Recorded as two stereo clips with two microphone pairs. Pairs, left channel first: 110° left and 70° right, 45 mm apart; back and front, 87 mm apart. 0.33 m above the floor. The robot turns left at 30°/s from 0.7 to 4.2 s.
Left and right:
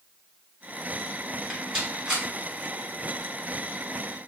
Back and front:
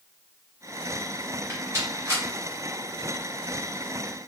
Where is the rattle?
10° left, 1.6 m; by 2.2 s 15° right, 1.6 m.